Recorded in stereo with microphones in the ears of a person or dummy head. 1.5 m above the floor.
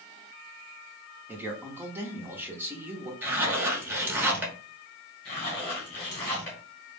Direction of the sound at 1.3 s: 15° right (ahead or behind).